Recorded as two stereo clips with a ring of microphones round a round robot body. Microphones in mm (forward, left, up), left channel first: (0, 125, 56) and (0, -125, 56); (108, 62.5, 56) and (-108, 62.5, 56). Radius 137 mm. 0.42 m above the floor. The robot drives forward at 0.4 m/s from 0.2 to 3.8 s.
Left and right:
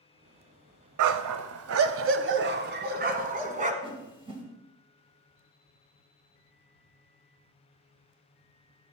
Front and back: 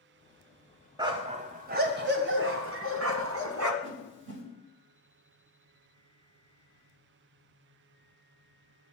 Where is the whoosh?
160° right, 3 m.